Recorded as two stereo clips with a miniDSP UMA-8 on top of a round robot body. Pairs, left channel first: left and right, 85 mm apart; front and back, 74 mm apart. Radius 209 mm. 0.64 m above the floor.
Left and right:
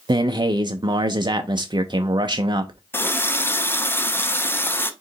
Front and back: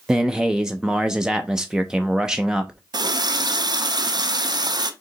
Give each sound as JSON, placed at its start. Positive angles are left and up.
{"t": 0.1, "sound": "a man speaking", "azimuth_deg": -100, "distance_m": 0.6}
{"t": 2.9, "sound": "a running tap", "azimuth_deg": 155, "distance_m": 0.7}